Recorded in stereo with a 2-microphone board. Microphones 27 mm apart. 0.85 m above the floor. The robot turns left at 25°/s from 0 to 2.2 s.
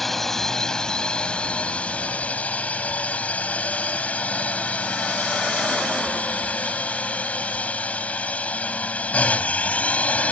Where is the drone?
170° left; by 10.3 s 115° left.